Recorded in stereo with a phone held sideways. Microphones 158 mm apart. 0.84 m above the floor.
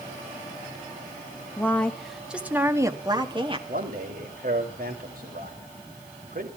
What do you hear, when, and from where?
1.6 s a woman speaking: 15° left (ahead or behind), 1.6 m; by 3.6 s 35° right (ahead or behind), 1.8 m
3.7 s a man speaking: 70° right (ahead or behind), 3.5 m